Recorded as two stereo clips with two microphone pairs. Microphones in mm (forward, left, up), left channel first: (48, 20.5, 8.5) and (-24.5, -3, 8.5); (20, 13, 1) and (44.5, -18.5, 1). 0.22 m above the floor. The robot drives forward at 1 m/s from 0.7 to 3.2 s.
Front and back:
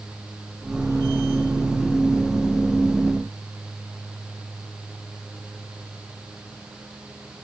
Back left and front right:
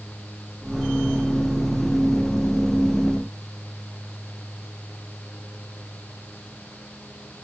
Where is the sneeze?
I don't hear a sneeze.